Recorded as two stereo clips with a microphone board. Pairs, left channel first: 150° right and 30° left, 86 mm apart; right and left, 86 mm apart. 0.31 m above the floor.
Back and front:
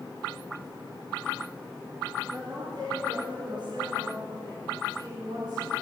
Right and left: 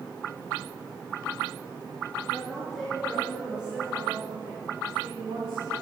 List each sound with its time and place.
2.3 s a woman speaking: 10° right, 5.5 m; by 5.7 s 55° left, 3.5 m